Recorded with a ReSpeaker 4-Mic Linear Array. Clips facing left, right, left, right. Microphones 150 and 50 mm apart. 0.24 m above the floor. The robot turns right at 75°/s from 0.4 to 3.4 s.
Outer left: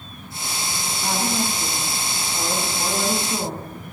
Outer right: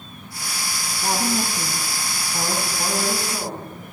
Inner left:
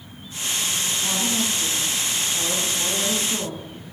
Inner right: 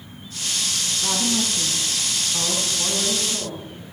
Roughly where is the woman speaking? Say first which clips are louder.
Outer right 1 dB, inner right 2 dB; behind right.